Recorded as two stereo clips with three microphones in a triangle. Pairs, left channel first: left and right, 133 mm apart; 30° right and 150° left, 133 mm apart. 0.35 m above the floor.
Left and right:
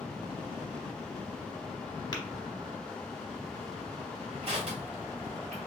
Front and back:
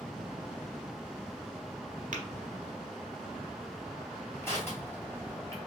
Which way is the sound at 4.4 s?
100° right.